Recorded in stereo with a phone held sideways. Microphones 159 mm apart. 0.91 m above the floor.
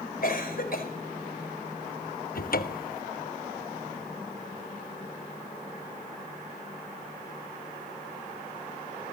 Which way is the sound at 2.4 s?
65° left (ahead or behind).